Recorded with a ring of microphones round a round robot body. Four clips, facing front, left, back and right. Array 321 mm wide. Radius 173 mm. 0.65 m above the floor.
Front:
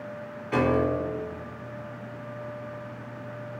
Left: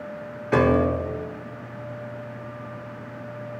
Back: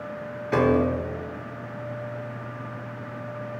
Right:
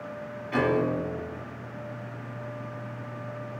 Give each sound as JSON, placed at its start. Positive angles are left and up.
{"t": 0.5, "sound": "a piano", "azimuth_deg": 110, "distance_m": 1.8}